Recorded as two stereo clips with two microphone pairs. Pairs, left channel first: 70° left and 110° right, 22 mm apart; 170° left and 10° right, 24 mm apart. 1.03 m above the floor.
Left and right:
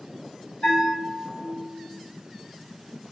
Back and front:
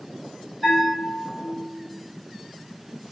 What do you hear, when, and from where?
0.6 s a bell: 85° left, 1.5 m